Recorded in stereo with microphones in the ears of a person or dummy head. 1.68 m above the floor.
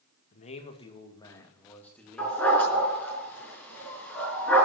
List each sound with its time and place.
0.3 s a man speaking: 45° left (ahead or behind), 2.0 m; by 2.6 s centre (ahead or behind), 3 m
2.2 s a dog barking: 10° left (ahead or behind), 5 m